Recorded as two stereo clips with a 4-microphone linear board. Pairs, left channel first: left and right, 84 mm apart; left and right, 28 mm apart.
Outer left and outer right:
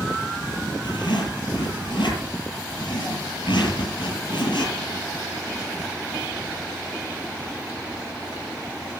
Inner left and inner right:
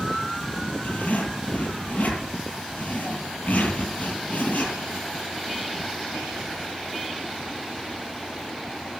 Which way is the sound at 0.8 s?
75° left (ahead or behind).